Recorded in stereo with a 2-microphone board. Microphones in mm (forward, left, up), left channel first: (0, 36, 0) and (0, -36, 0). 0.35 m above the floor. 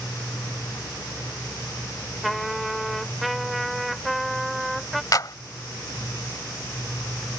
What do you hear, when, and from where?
2.2 s a trumpet: centre (ahead or behind)
5.1 s a clap: 50° left (ahead or behind)